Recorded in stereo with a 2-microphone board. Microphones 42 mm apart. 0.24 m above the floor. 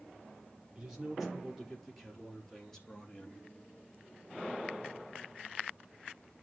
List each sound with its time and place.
0.8 s a man speaking: 15° right (ahead or behind), 5 m; by 3.4 s 20° left (ahead or behind), 4.5 m